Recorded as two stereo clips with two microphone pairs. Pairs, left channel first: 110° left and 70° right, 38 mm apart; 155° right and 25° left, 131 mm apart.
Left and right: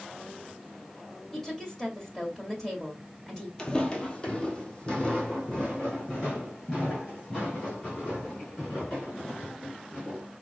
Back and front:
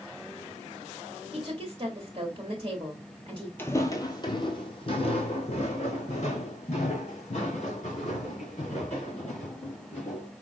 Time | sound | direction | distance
1.3 | a woman speaking | 45° left | 1.5 m
3.6 | footsteps | 150° left | 0.7 m